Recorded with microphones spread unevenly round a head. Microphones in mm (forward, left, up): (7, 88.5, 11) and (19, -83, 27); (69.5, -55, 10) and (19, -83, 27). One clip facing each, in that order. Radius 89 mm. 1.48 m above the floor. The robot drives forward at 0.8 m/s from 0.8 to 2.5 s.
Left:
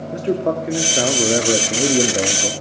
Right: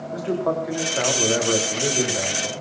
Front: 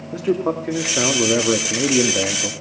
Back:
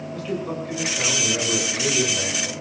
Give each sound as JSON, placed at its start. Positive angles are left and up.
{"t": 0.1, "sound": "a man speaking", "azimuth_deg": 35, "distance_m": 3.0}